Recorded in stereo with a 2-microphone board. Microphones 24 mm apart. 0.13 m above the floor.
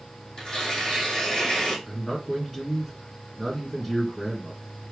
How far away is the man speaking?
About 1.2 m.